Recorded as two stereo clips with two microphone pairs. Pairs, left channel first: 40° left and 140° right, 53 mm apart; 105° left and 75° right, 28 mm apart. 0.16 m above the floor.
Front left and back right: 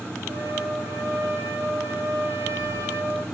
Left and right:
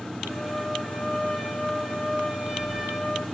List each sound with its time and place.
0.3 s a trumpet: 170° right, 3 m